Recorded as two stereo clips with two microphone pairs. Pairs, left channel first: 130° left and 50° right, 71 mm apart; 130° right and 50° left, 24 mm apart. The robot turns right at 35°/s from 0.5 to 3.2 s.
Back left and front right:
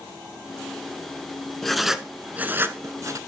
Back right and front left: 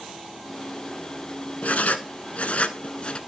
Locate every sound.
1.6 s writing: 145° right, 0.6 m; by 3.2 s 90° right, 0.6 m